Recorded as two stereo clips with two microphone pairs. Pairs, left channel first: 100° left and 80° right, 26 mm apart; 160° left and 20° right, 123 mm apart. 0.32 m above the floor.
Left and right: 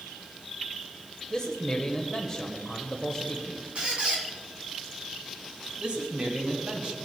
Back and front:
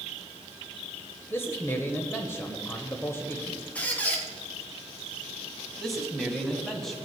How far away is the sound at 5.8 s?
About 1.8 m.